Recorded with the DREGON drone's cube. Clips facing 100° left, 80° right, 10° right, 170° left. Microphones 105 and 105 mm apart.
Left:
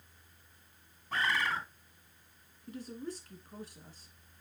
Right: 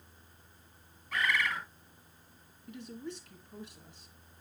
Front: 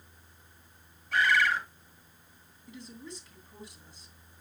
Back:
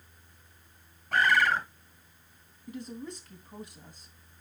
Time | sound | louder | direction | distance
1.1 | a bird | even, back 2 dB | 145° left | 0.8 m
2.7 | a woman speaking | left 1 dB, back 6 dB | 140° left | 2.5 m